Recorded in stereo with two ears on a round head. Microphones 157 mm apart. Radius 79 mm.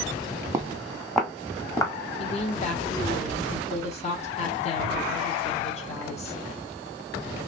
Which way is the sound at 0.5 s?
20° right (ahead or behind).